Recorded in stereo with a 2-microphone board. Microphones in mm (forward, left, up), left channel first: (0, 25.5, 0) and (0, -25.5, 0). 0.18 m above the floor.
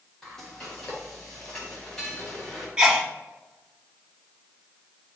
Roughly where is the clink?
I don't hear a clink.